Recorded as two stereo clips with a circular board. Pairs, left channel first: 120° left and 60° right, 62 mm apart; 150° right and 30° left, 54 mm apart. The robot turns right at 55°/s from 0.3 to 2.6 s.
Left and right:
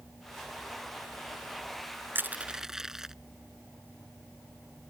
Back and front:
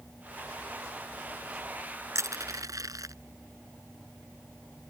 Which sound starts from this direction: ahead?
Crushing, at 2.1 s.